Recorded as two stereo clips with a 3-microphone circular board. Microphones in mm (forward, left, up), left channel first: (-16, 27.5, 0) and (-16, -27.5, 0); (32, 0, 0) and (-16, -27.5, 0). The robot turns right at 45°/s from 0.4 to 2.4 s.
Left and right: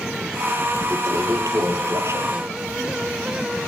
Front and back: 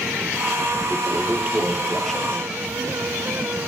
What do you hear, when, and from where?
0.9 s a toilet flushing: 110° right, 3 m; by 2.6 s 40° right, 3 m